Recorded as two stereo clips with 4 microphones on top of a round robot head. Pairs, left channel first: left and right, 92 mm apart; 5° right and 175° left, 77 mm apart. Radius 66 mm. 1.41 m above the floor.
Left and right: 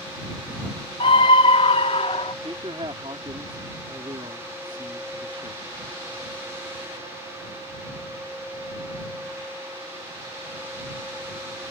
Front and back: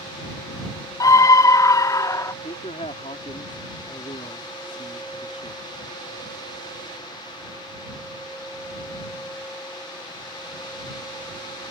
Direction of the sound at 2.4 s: 35° right.